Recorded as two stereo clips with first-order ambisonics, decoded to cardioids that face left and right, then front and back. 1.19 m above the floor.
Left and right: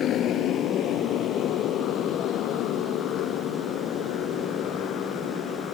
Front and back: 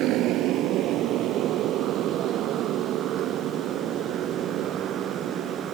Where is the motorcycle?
140° left; by 5.8 s 130° left.